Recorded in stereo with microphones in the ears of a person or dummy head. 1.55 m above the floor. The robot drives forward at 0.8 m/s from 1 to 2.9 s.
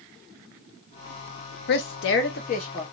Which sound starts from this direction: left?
A woman speaking, at 1.7 s.